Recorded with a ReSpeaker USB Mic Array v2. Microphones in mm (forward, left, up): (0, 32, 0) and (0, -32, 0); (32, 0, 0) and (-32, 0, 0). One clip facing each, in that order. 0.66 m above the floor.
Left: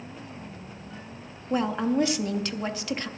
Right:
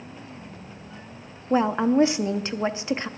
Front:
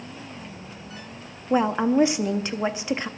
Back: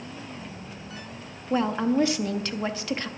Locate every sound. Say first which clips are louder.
1.5 s a woman speaking: right 5 dB, front 3 dB; 50° right, 0.5 m